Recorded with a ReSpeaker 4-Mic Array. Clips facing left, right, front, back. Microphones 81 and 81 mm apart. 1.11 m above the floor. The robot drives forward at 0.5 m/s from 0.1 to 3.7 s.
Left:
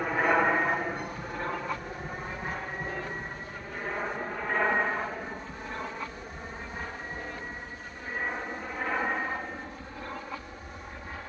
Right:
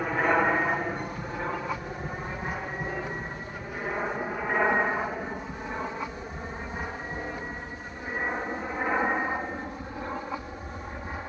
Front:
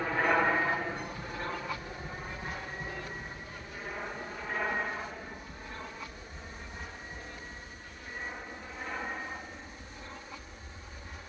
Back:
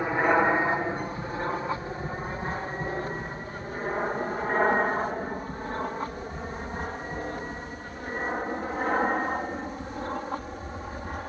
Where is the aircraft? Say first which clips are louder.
Right 1 dB, back 5 dB; 175° right; by 11.3 s 160° right.